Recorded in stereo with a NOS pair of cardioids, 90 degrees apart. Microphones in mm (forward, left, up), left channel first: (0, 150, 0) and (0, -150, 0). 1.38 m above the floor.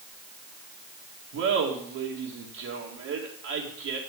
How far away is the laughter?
About 2.5 m.